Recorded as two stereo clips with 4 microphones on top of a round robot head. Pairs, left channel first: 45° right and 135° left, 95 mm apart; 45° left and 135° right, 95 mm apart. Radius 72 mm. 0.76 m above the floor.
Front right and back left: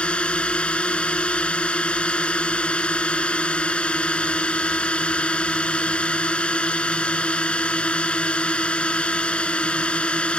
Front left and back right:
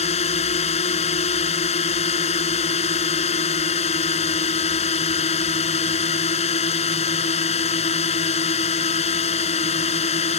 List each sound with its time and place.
0.0 s a drone: 35° left